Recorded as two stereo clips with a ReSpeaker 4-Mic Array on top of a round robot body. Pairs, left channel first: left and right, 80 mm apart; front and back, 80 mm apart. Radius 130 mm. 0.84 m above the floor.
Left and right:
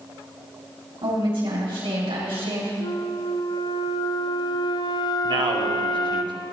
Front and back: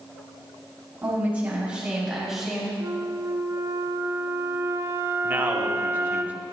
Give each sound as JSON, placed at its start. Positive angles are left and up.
{"t": 1.0, "sound": "a woman speaking", "azimuth_deg": -110, "distance_m": 5.0}
{"t": 2.8, "sound": "a flute", "azimuth_deg": 120, "distance_m": 0.6}
{"t": 5.2, "sound": "a man speaking", "azimuth_deg": -110, "distance_m": 2.5}